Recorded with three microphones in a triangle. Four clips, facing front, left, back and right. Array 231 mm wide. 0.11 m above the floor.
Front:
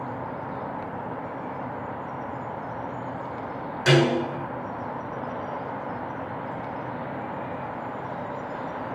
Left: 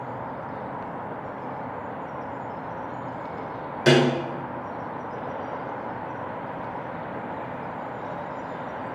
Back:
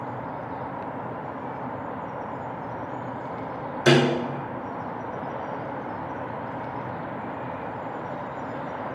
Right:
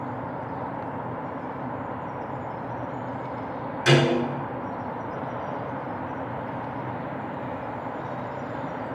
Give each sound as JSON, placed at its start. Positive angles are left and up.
{"t": 3.9, "sound": "a snare drum", "azimuth_deg": 125, "distance_m": 2.5}